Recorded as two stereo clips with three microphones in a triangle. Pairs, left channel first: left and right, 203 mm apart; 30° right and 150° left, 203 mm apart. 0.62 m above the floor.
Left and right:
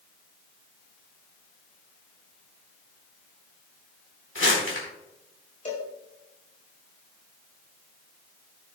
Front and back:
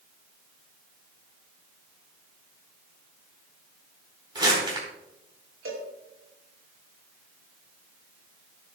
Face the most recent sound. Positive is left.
turn(degrees=145)